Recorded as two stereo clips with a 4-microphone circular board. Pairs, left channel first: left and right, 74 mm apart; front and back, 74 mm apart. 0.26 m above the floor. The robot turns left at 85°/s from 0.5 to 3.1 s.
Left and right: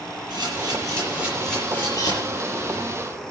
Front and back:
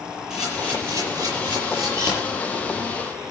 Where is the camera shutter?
100° right, 8 m; by 2.1 s 120° left, 8 m.